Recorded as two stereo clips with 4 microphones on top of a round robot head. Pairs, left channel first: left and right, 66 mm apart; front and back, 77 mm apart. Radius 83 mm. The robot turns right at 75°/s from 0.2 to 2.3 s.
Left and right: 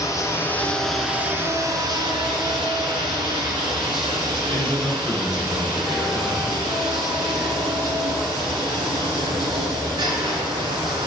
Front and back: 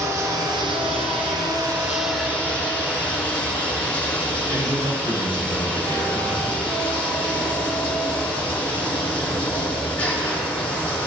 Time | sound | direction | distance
0.0 | running water | 125° left | 3 m
4.5 | a man speaking | 145° right | 3 m